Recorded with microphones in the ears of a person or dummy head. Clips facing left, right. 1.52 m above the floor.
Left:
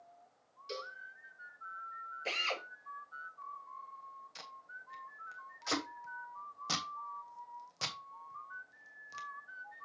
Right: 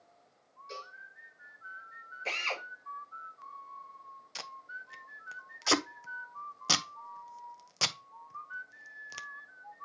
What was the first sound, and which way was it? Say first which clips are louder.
A cowbell: left 3 dB; 45° left (ahead or behind).